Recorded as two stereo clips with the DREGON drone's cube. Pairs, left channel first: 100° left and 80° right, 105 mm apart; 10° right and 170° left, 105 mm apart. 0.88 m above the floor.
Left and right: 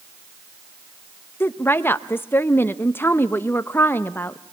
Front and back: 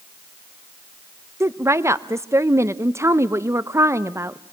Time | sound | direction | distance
1.4 | a woman speaking | 140° left | 0.7 m